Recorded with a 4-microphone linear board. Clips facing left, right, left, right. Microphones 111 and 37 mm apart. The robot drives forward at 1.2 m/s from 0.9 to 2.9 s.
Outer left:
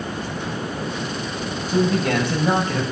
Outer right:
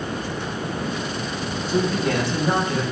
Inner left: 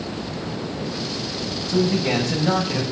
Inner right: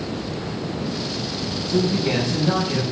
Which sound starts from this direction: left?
A man speaking, at 1.7 s.